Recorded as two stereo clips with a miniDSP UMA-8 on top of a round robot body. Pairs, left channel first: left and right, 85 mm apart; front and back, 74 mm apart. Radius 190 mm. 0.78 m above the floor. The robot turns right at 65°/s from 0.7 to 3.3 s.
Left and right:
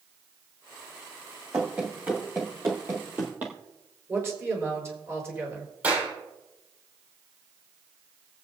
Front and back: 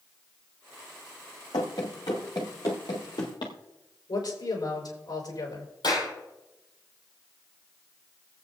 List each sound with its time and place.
1.5 s running footsteps: 15° right, 0.9 m; by 3.5 s 20° right, 1.2 m
4.1 s a man speaking: 30° right, 5 m
5.8 s a clap: 15° right, 7 m